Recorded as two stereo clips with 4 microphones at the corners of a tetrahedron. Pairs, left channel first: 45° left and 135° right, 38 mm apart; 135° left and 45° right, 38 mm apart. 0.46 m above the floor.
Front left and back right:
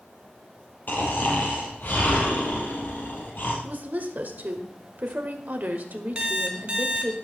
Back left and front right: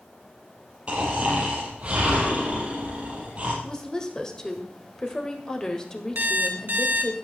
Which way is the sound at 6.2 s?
80° right.